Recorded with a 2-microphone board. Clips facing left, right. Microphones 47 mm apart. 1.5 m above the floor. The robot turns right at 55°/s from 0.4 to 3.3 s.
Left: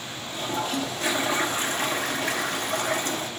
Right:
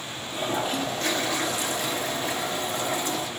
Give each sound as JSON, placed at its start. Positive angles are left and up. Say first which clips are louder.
{"t": 0.3, "sound": "a toilet flushing", "louder": "right 1 dB", "azimuth_deg": -20, "distance_m": 0.6}